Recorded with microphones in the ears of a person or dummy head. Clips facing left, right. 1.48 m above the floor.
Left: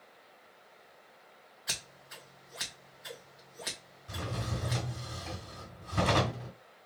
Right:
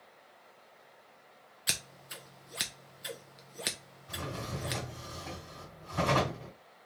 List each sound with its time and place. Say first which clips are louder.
1.7 s scissors: right 3 dB; 40° right (ahead or behind), 0.7 m
4.1 s a drawer: left 1 dB; 35° left (ahead or behind), 1.4 m